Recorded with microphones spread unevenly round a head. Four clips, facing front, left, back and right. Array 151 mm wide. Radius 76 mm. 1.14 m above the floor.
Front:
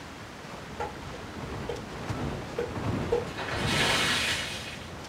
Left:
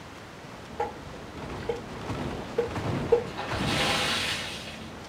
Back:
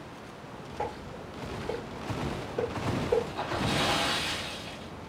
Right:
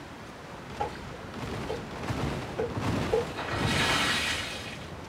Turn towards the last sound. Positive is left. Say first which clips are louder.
# even, back 1 dB
turn(degrees=145)